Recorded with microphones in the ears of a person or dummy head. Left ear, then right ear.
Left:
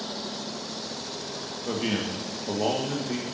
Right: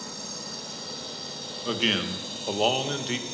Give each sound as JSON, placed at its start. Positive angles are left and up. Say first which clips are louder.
{"t": 1.6, "sound": "a man speaking", "louder": "right 4 dB", "side_deg": -65, "distance_m": 1.6}